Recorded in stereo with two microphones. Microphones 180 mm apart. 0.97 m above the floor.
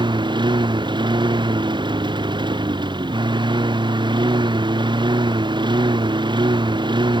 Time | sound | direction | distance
0.0 | a lawn mower | 25° right (ahead or behind) | ?